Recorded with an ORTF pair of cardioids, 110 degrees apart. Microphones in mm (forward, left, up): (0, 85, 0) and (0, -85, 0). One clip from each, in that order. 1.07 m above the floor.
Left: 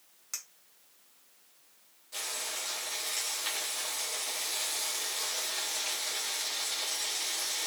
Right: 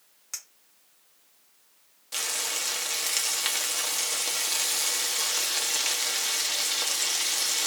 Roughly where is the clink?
Ahead.